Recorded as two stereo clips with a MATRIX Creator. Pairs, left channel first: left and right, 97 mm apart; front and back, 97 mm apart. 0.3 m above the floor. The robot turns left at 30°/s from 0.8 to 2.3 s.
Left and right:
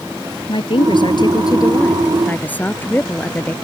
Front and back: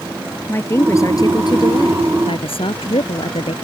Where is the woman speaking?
60° left; by 3.5 s 15° left.